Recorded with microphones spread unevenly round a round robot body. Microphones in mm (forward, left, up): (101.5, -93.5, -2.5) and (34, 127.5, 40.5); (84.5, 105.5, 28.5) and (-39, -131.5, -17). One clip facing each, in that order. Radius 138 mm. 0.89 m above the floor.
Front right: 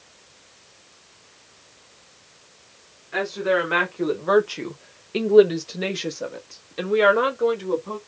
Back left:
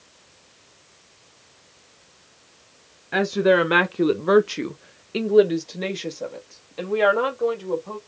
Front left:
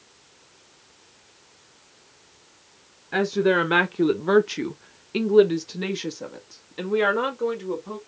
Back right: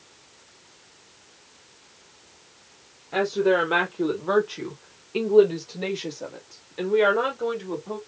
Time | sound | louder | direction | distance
3.1 | a woman speaking | back left 5 dB, front left 1 dB | 125° left | 1.0 m